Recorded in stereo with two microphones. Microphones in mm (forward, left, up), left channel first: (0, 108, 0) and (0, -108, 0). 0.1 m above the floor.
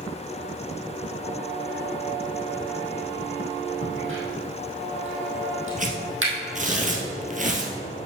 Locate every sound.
3.8 s a crack: 70° right (ahead or behind), 2.5 m
5.8 s tearing paper: 40° right (ahead or behind), 1.4 m